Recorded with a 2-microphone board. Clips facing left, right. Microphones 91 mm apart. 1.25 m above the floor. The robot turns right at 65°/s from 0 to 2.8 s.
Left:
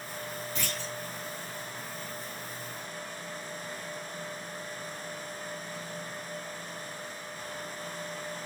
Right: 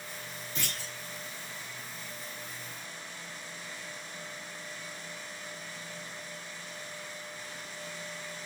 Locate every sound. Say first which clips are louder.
0.6 s a clunk: left 1 dB; 20° right (ahead or behind), 1.5 m; by 0.9 s centre (ahead or behind), 1.5 m